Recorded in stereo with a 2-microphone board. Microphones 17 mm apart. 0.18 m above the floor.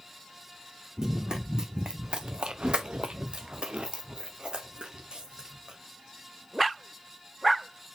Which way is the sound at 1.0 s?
35° right (ahead or behind).